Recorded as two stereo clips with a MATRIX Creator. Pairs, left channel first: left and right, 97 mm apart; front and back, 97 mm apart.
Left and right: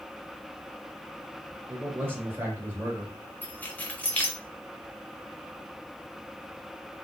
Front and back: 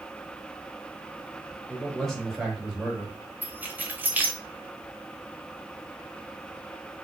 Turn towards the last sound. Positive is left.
turn(degrees=140)